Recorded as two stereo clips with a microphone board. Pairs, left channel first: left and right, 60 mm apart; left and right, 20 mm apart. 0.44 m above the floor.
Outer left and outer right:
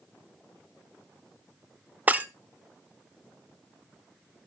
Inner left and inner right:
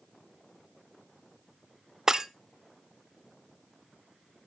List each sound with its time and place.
2.1 s breaking glass: 25° right (ahead or behind), 0.6 m